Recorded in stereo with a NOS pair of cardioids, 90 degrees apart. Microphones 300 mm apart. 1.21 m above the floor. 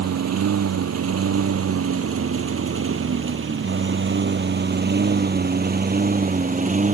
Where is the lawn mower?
60° right; by 7.0 s 25° right.